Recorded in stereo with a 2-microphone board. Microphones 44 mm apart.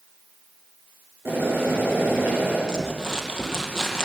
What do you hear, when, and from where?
1.2 s boiling: 65° right (ahead or behind), 9 m
2.7 s crumpling: 15° right (ahead or behind), 2.5 m